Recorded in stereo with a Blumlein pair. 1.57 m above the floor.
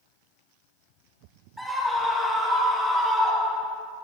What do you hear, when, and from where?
1.6 s a scream: straight ahead, 6 m; by 3.8 s 25° left, 5 m